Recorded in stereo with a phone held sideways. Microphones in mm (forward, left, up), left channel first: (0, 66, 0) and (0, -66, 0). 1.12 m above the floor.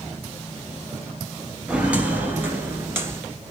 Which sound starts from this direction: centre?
Footsteps, at 1.7 s.